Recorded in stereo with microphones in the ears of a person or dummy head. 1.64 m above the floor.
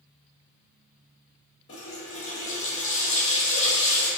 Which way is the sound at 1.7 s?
25° left (ahead or behind).